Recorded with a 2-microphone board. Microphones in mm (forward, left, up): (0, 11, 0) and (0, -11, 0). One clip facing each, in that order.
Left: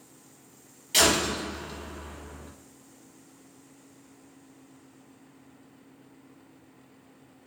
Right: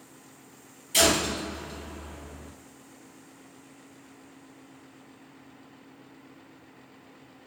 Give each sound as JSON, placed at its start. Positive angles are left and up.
{"t": 0.9, "sound": "a door slam", "side_deg": 60, "distance_m": 1.3}